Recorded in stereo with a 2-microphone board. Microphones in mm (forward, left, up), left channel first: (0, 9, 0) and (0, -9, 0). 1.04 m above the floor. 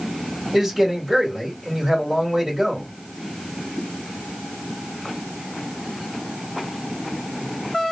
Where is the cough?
No cough in this recording.